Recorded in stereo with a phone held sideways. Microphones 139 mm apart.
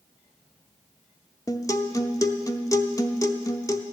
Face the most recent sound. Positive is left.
turn(degrees=25)  # may be behind; listen again after turning